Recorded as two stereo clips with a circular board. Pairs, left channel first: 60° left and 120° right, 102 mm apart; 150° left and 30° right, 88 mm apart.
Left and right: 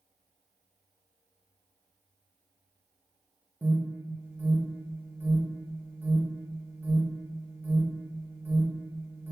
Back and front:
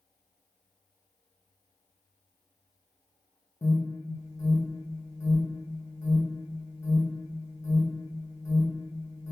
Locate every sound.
3.6 s an alarm: straight behind, 0.6 m